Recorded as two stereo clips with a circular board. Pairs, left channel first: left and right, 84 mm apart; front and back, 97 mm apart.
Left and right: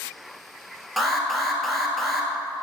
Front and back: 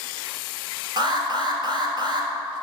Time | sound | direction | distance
1.0 | an alarm | straight behind | 1.6 m